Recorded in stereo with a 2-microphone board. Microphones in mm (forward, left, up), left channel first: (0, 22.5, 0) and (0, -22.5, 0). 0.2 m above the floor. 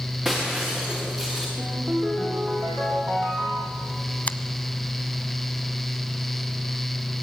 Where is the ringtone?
40° right (ahead or behind), 6 m.